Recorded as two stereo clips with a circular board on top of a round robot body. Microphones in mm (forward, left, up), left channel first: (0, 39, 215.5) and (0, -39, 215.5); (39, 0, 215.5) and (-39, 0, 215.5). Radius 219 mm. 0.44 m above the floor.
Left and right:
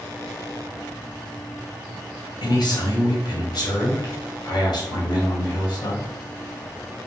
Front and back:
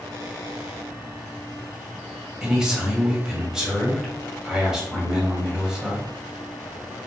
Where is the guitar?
I don't hear a guitar.